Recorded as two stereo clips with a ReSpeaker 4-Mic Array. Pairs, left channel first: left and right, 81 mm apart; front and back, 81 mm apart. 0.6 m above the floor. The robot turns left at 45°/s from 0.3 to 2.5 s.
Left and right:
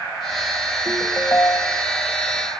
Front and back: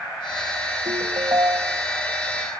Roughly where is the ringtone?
Behind.